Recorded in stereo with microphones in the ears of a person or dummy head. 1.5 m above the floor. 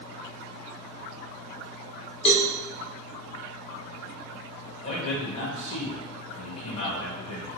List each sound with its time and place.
2.2 s a cowbell: 35° left (ahead or behind), 0.5 m
4.8 s a man speaking: 40° left (ahead or behind), 1.4 m